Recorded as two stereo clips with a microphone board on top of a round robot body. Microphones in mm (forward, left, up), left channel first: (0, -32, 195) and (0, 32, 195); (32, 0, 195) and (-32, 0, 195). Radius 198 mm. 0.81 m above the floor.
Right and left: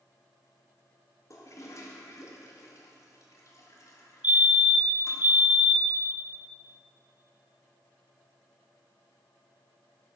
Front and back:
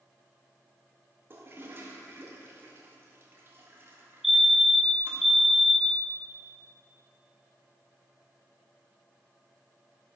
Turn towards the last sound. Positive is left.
turn(degrees=95)